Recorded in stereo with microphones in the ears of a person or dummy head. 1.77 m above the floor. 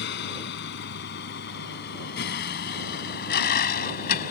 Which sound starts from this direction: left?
A vehicle, at 0.0 s.